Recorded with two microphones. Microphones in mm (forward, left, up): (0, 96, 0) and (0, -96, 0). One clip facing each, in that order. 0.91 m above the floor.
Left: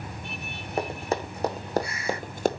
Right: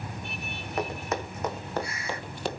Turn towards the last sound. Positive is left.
turn(degrees=45)  # may be behind; listen again after turning